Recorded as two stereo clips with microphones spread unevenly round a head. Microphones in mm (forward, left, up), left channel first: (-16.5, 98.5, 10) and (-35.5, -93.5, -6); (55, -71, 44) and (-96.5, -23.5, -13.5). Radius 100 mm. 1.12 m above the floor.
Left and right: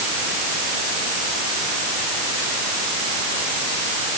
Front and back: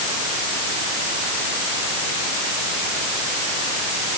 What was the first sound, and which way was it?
Only background noise.